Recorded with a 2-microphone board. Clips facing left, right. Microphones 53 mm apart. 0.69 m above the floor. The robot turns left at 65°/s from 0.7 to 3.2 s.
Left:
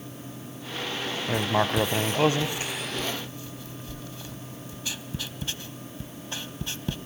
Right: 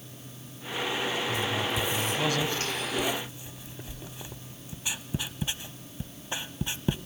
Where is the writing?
60° left (ahead or behind), 0.8 m; by 7.0 s 20° right (ahead or behind), 0.8 m.